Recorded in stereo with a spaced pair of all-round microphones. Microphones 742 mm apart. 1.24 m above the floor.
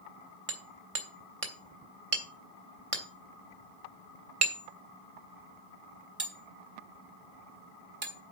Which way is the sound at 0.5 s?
45° right (ahead or behind).